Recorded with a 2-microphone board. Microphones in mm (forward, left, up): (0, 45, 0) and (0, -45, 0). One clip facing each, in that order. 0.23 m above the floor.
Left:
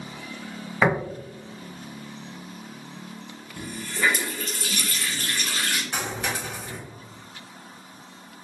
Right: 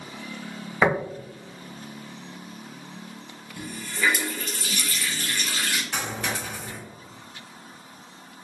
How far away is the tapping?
About 1.4 m.